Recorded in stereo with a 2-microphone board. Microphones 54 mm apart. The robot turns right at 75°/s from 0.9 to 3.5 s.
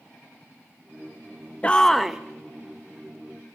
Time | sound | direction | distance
1.6 | a shout | 150° left | 0.7 m